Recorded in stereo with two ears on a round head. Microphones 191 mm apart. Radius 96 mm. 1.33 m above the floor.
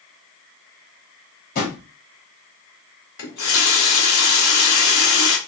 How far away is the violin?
No violin in this recording.